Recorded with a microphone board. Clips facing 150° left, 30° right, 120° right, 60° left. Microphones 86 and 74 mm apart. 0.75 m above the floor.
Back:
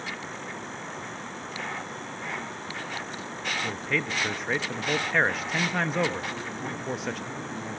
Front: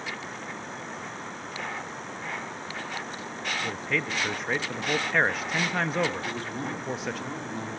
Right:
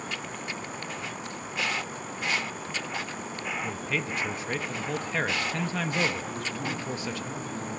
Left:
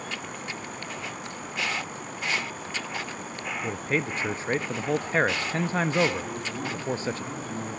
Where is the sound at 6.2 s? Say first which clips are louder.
Front 1 dB, even; straight ahead, 6.5 m.